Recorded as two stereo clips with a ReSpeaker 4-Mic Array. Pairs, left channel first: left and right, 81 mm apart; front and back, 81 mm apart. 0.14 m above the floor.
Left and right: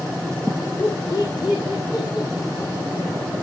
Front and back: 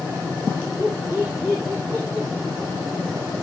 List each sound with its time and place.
0.8 s laughter: 100° left, 4.5 m; by 3.4 s 105° left, 3 m